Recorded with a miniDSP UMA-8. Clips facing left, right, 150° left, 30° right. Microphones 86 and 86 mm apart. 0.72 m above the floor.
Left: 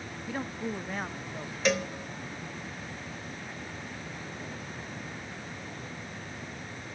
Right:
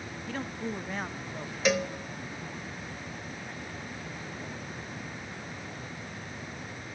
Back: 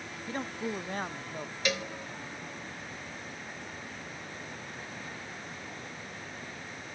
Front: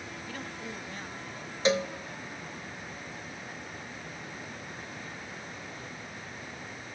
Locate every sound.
0.3 s a man speaking: 150° left, 0.6 m; by 1.6 s 175° right, 1.3 m
1.6 s a cowbell: 5° right, 1.0 m